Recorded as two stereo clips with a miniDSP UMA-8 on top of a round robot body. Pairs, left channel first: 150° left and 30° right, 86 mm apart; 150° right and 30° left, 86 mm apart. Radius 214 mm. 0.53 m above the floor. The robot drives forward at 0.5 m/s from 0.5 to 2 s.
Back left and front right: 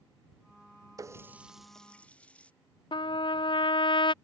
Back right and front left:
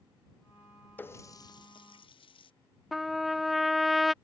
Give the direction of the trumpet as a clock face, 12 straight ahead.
8 o'clock.